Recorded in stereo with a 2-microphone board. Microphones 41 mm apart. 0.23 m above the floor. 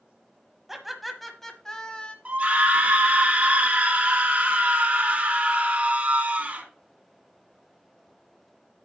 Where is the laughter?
10° right (ahead or behind), 1.3 m; by 2.1 s 25° left (ahead or behind), 1.2 m.